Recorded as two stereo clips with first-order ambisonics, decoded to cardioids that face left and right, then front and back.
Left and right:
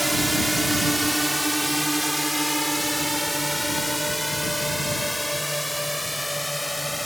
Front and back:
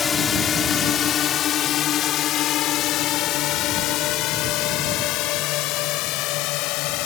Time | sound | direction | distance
0.0 | a drone | 15° right | ?